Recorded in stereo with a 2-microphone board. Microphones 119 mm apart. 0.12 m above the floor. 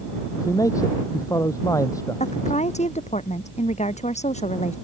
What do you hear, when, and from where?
0.4 s a man speaking: 30° left (ahead or behind)
2.2 s a woman speaking: 70° left (ahead or behind)